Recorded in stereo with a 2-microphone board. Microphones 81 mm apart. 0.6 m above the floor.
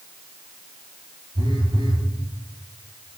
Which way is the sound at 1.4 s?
80° right.